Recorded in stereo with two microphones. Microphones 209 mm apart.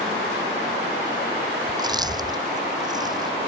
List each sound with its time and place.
1.7 s chewing: 20° right (ahead or behind)